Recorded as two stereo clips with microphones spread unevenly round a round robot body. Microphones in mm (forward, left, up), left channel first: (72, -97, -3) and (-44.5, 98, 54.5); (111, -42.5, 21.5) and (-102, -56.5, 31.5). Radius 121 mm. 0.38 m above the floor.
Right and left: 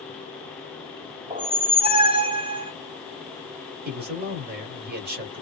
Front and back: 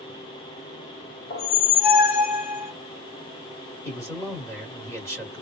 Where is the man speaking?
70° left, 1.3 m.